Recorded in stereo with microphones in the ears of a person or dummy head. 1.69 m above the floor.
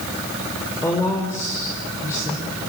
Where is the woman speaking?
10° left (ahead or behind), 5.5 m.